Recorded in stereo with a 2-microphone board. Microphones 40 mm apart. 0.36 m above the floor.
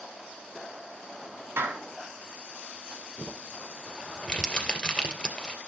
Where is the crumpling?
20° left (ahead or behind), 2.5 m.